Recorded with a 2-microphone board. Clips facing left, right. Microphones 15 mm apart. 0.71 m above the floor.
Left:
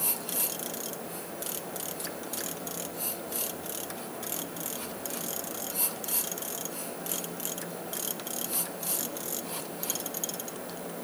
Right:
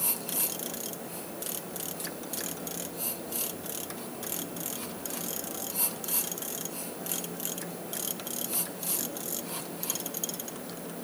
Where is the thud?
I don't hear a thud.